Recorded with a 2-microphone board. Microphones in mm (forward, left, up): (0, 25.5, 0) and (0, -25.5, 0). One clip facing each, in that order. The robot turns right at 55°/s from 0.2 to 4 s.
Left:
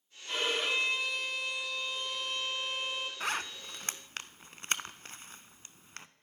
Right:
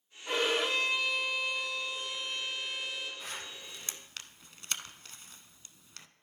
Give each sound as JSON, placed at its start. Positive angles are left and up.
{"t": 0.3, "sound": "a violin", "azimuth_deg": -100, "distance_m": 3.5}
{"t": 3.2, "sound": "a zipper", "side_deg": 75, "distance_m": 0.6}